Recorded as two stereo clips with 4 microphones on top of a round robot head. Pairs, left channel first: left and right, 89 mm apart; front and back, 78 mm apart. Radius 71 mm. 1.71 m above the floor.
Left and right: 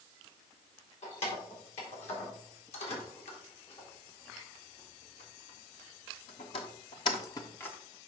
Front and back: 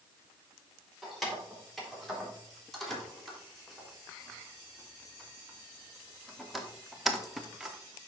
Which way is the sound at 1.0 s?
85° left.